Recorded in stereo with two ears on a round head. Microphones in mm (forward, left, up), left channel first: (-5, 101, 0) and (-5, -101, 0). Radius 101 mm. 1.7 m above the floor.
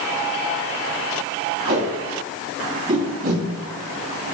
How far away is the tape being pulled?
About 1.9 m.